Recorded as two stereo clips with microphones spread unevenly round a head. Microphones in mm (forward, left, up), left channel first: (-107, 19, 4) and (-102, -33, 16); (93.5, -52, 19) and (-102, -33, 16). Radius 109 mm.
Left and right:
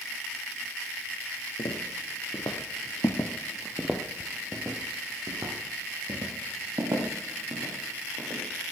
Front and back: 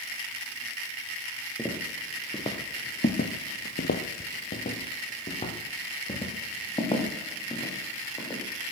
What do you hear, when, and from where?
1.6 s footsteps: 75° left, 2.5 m; by 8.7 s 75° right, 6.5 m